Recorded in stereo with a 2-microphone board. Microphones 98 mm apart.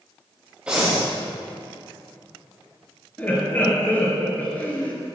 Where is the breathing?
10° right (ahead or behind), 3.5 m.